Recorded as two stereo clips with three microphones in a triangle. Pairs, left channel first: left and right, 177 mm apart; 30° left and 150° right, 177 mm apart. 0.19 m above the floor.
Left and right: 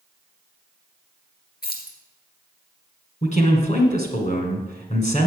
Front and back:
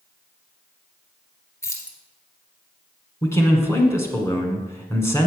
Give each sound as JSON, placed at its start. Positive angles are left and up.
{"t": 1.6, "sound": "keys jangling", "azimuth_deg": 100, "distance_m": 1.9}
{"t": 3.2, "sound": "a man speaking", "azimuth_deg": 100, "distance_m": 1.5}